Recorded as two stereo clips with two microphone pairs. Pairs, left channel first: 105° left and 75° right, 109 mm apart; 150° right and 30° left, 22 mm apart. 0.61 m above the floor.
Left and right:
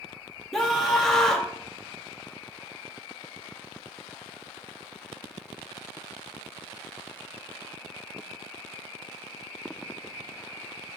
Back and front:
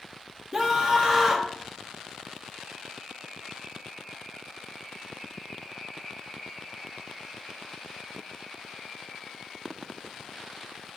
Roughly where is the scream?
Ahead.